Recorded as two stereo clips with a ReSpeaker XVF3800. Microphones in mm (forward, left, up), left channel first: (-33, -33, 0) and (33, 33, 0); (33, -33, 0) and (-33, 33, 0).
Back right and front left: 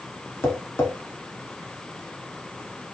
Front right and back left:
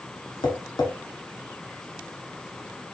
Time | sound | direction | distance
0.4 | tapping | 75° right | 0.7 m